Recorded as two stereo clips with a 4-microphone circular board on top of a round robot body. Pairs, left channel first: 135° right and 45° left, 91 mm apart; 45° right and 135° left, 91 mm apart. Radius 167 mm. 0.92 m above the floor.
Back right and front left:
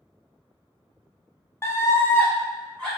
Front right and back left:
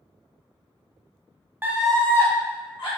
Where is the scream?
175° right, 0.9 m; by 2.9 s 55° right, 1.4 m.